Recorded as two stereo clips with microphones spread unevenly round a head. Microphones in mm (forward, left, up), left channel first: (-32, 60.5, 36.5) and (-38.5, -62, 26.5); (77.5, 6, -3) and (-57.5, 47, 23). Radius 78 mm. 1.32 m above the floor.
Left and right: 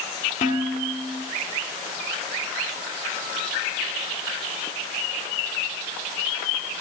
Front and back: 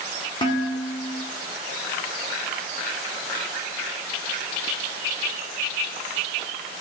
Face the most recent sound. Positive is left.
turn(degrees=40)